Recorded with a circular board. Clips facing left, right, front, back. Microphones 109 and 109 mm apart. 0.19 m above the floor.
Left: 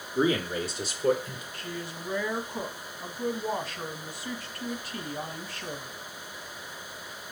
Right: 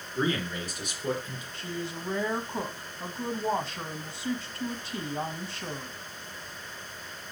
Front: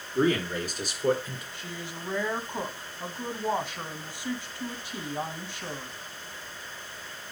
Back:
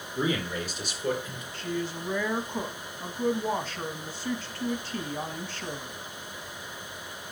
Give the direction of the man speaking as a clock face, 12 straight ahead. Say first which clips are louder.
Left 4 dB, front 4 dB; 11 o'clock.